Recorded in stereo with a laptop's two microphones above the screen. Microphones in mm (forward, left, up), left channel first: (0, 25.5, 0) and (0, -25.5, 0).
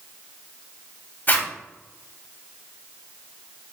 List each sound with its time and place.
1.3 s a zipper: 40° left (ahead or behind), 0.8 m